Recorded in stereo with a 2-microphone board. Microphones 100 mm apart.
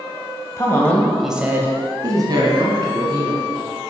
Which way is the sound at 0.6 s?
30° left (ahead or behind).